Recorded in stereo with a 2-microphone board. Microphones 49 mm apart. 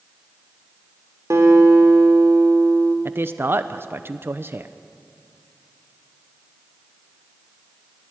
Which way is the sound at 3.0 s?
50° right (ahead or behind).